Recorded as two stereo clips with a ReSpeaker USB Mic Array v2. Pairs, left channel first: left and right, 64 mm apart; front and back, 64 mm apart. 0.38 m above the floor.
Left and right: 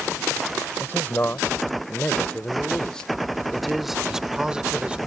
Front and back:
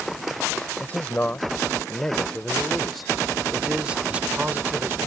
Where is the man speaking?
55° left; by 5.0 s 150° right.